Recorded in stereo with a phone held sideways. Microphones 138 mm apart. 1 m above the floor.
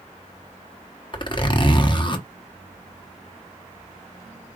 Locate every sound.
1.1 s a zipper: 35° left (ahead or behind), 1.0 m